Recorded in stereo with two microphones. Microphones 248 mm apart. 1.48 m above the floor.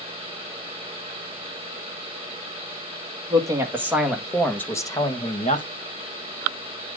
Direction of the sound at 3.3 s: 15° right (ahead or behind).